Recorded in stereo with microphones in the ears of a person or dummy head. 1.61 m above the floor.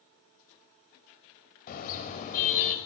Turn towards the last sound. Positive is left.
turn(degrees=50)  # may be behind; listen again after turning